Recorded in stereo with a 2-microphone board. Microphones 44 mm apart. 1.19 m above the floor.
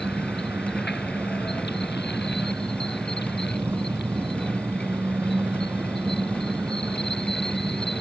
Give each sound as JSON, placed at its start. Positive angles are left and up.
{"t": 0.0, "sound": "an engine running", "side_deg": -60}